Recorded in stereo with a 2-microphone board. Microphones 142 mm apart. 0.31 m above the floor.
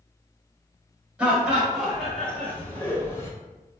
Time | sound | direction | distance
1.2 | laughter | 10° right (ahead or behind) | 1.2 m